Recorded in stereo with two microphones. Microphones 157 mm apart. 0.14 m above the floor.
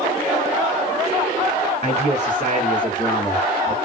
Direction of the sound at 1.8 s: 40° left (ahead or behind).